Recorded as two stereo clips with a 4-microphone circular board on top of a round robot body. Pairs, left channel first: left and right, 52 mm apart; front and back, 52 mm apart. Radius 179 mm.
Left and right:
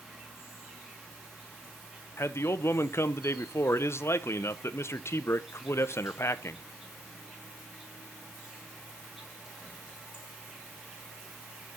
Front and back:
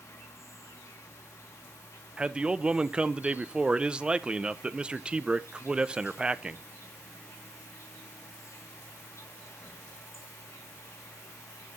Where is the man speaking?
110° left, 0.7 m.